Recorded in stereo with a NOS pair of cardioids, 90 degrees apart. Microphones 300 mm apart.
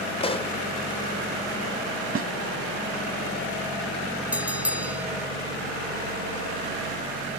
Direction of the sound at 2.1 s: 50° right.